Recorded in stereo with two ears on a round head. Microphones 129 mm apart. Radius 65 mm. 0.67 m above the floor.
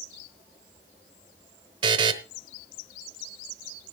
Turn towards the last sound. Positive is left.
turn(degrees=-35)  # may be behind; listen again after turning